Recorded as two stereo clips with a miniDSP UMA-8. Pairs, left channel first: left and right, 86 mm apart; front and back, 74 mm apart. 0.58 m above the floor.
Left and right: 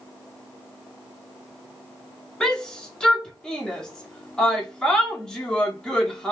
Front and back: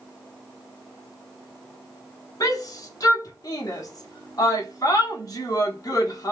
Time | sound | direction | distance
2.4 | a shout | 10° left | 1.1 m